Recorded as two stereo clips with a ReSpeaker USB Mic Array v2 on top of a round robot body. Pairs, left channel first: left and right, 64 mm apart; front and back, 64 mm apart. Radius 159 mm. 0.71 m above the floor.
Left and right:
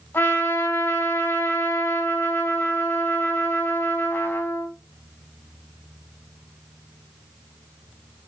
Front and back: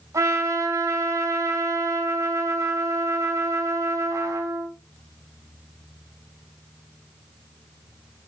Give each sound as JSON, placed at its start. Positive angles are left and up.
{"t": 0.1, "sound": "a trumpet", "azimuth_deg": 150, "distance_m": 4.0}